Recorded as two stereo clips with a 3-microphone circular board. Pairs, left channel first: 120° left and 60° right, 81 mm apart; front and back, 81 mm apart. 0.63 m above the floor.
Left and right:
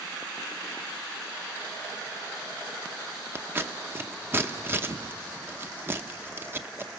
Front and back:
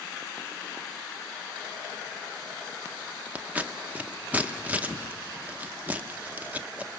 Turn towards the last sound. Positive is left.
turn(degrees=-115)